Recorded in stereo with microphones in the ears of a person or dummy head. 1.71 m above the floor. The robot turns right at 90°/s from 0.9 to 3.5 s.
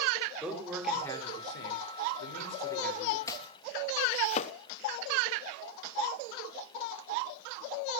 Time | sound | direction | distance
0.4 | a man speaking | straight ahead | 5 m
3.3 | chopping | 15° left (ahead or behind) | 1.1 m